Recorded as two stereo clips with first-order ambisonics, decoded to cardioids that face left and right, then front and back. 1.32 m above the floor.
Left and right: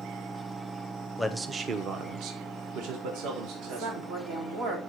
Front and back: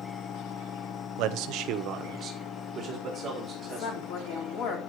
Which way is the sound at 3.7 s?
35° right.